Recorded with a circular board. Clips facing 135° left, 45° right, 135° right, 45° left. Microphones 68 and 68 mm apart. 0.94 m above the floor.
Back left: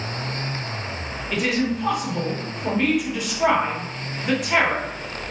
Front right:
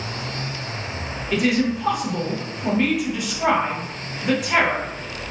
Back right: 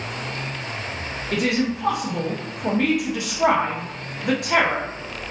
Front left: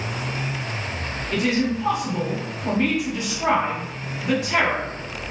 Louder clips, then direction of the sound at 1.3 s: Front right 3 dB, even; 135° right.